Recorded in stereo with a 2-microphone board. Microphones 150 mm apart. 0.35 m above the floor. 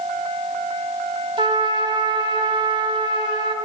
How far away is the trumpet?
About 1.6 m.